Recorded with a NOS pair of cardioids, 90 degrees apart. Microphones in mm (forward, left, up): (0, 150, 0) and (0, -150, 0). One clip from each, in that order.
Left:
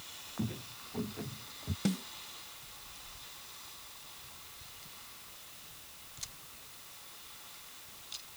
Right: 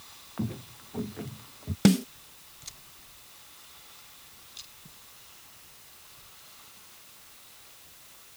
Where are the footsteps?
30° right; by 1.8 s 25° right.